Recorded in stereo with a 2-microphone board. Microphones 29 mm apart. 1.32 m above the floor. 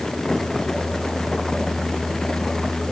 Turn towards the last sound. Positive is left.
No sound to turn to.